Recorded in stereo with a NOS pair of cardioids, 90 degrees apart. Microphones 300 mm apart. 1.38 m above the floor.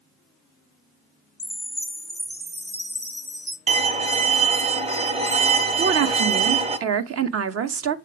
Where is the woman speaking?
55° right, 0.9 m.